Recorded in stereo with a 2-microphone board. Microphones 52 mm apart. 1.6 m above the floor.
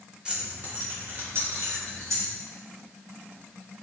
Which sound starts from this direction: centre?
Keys jangling, at 0.2 s.